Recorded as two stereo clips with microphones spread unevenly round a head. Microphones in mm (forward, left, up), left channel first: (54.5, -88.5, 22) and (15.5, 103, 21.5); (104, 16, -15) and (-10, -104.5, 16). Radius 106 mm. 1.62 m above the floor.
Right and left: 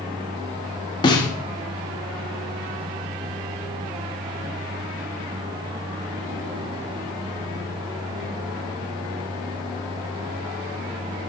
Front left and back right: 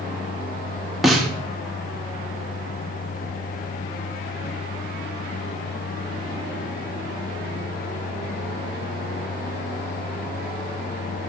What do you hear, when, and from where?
1.0 s a snare drum: 80° right, 1.0 m